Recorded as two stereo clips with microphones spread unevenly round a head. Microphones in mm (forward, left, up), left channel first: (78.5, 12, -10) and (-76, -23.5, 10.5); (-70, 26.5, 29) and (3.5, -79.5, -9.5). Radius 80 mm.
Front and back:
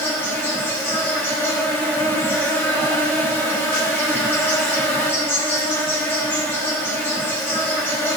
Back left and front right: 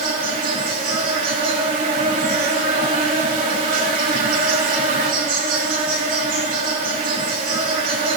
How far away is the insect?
About 5 m.